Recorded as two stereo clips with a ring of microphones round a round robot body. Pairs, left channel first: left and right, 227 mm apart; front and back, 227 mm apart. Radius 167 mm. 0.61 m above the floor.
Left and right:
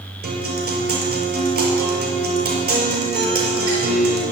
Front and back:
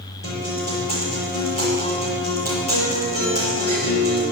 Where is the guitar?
45° right, 5.5 m.